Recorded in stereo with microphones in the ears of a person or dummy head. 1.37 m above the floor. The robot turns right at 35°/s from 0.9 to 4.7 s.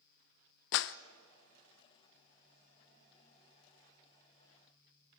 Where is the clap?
60° left (ahead or behind), 0.7 m.